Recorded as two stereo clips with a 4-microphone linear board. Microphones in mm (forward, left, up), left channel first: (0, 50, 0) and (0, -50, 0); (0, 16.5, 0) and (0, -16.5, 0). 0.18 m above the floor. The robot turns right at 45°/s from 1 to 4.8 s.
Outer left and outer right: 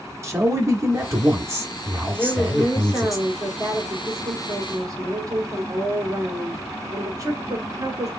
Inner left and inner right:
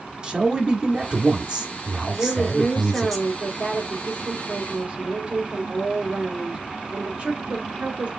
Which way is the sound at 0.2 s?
95° right.